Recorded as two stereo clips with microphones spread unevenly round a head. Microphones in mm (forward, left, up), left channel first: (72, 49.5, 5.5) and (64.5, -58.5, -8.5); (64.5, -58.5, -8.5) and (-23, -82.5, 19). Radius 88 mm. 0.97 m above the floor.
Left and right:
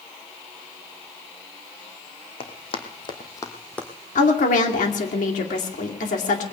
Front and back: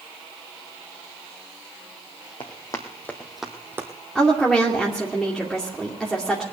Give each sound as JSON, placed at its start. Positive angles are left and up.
{"t": 2.4, "sound": "running footsteps", "azimuth_deg": 80, "distance_m": 1.9}
{"t": 4.2, "sound": "a woman speaking", "azimuth_deg": 100, "distance_m": 2.0}